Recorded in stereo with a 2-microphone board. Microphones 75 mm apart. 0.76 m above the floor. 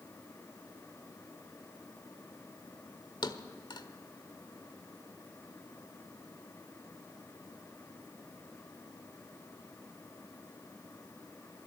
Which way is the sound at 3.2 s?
85° left.